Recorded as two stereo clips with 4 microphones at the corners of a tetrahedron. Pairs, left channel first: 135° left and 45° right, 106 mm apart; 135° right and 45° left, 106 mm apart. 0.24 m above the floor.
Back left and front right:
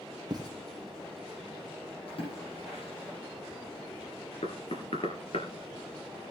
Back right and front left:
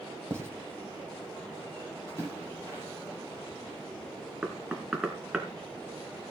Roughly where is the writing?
Ahead.